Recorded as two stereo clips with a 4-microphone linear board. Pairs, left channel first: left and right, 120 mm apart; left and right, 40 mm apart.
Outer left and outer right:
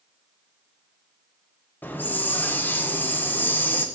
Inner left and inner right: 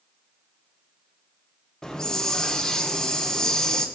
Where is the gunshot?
I don't hear a gunshot.